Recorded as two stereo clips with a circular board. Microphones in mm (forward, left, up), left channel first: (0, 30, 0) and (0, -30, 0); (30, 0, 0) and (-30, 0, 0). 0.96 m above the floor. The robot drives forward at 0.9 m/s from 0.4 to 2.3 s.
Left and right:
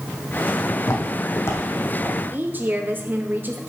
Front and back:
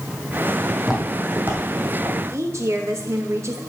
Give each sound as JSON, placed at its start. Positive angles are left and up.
{"t": 0.8, "sound": "footsteps", "azimuth_deg": 85, "distance_m": 1.8}
{"t": 2.3, "sound": "a woman speaking", "azimuth_deg": -145, "distance_m": 1.1}